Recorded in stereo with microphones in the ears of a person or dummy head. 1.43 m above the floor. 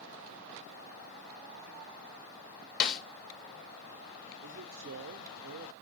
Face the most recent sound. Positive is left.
turn(degrees=-65)  # may be behind; listen again after turning